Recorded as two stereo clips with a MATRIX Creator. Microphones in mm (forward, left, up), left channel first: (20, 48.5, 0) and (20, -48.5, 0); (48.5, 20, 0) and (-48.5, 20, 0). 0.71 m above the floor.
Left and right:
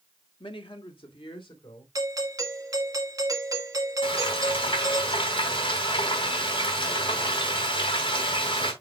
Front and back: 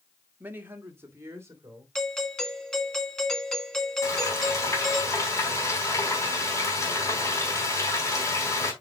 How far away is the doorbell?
About 1.6 m.